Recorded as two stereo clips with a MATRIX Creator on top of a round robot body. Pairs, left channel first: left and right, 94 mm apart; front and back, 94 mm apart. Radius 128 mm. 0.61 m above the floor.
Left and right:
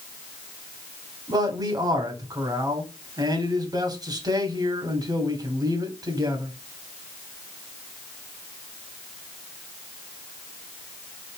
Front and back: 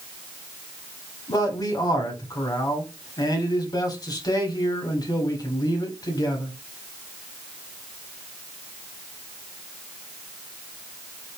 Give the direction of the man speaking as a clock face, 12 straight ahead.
2 o'clock.